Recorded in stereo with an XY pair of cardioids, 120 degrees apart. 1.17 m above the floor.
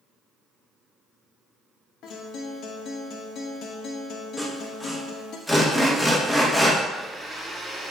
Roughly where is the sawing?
Ahead.